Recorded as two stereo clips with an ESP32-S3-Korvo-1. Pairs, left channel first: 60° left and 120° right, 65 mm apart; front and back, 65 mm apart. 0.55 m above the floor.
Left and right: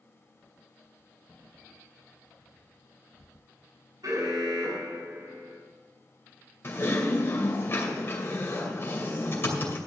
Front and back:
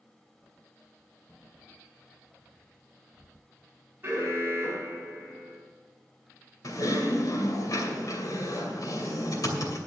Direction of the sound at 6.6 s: 10° left.